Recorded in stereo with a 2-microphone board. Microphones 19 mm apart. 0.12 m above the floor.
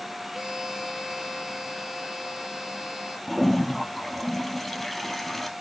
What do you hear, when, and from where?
0.3 s a violin: 35° right (ahead or behind), 3 m
3.3 s a toilet flushing: 5° left (ahead or behind), 2 m